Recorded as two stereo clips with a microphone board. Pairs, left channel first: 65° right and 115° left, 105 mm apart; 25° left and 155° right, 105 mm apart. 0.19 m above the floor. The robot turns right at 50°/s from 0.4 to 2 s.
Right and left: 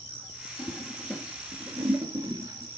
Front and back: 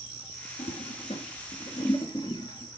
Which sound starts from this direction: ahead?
A toilet flushing, at 0.6 s.